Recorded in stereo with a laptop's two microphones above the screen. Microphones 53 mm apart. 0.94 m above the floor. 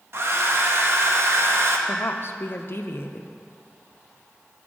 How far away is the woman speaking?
About 0.6 m.